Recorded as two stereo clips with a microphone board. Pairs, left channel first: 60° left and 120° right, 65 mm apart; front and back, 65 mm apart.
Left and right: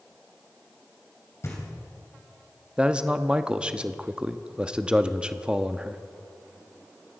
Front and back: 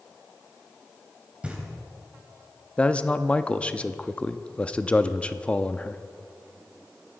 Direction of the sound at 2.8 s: 60° right.